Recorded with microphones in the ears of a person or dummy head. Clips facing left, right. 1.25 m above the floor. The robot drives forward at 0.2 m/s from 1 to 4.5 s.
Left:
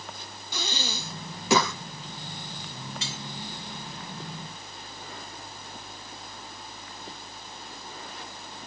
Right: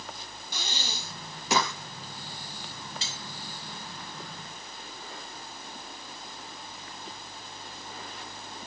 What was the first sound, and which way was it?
Breathing, 70° left (ahead or behind).